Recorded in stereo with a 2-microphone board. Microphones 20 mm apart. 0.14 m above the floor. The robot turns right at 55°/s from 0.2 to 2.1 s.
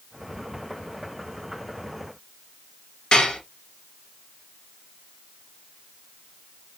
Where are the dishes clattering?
45° left (ahead or behind), 1.7 m.